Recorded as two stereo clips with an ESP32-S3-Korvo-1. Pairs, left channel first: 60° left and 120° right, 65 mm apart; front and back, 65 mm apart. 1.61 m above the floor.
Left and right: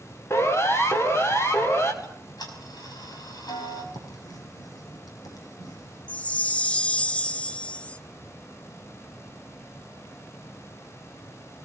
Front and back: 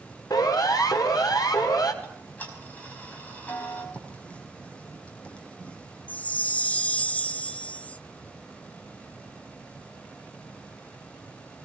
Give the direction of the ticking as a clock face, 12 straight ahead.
10 o'clock.